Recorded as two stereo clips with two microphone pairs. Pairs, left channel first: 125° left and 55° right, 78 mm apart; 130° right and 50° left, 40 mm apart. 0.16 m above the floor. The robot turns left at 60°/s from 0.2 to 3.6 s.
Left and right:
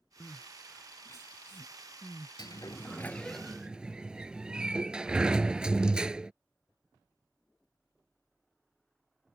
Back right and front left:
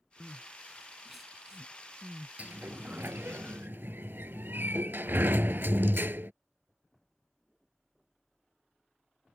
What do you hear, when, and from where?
0.2 s crying: 175° right; by 3.1 s 10° left
2.4 s a sliding door: 95° left; by 6.3 s 25° left